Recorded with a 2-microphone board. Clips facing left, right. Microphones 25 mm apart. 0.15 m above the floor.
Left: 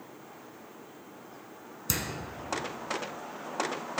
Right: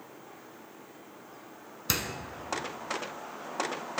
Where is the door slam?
25° right (ahead or behind), 1.0 m.